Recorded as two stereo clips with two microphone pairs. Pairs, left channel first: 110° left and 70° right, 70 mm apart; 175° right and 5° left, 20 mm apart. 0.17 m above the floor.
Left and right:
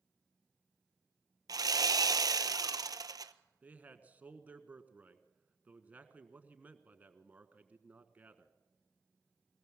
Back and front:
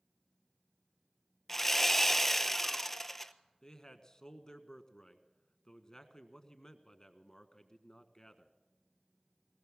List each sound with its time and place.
1.5 s sawing: 100° right, 0.8 m
3.6 s a man speaking: 130° right, 1.5 m